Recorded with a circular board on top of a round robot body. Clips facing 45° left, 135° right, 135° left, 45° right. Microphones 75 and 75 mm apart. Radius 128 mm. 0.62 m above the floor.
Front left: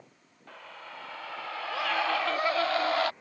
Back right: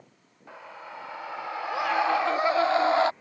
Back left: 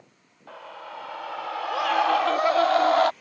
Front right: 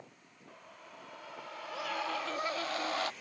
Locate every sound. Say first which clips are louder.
0.5 s a scream: back right 3 dB, back left 14 dB; 150° left; by 3.1 s 160° left